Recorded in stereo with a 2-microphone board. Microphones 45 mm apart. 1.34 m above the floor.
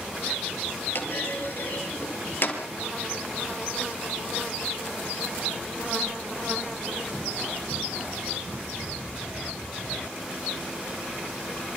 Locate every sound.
0.9 s a clunk: 55° left (ahead or behind), 5.5 m